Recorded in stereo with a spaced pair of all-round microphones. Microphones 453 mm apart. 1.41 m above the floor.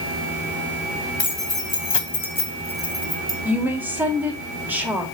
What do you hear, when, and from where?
1.2 s keys jangling: 75° left (ahead or behind), 1.8 m; by 3.4 s 20° right (ahead or behind), 1.8 m
3.5 s a woman speaking: 5° right (ahead or behind), 2.5 m